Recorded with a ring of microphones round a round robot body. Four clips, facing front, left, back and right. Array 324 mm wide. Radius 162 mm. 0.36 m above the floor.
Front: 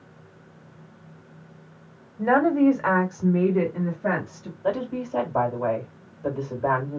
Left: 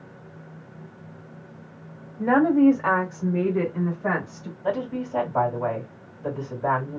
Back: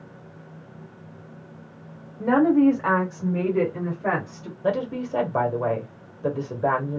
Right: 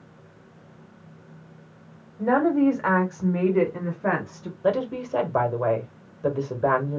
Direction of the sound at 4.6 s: 120° right.